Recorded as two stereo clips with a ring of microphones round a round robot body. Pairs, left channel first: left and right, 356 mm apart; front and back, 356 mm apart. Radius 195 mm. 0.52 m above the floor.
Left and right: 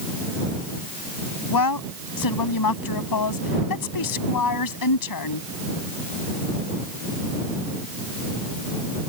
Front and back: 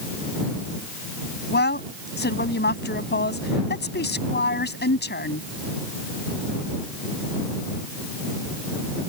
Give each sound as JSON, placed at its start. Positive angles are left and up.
{"t": 1.5, "sound": "a woman speaking", "azimuth_deg": 60}